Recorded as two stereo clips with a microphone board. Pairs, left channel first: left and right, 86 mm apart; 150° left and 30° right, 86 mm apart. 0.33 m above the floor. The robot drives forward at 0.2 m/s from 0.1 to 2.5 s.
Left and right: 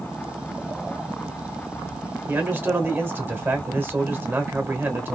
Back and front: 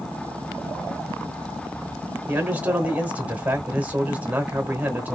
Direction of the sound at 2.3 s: 70° right.